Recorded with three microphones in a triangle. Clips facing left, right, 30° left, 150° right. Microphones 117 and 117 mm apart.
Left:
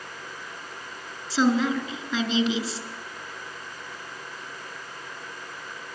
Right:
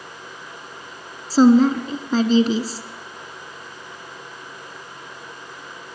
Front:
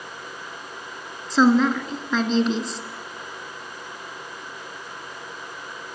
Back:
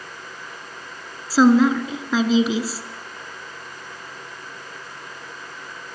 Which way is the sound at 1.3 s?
70° right.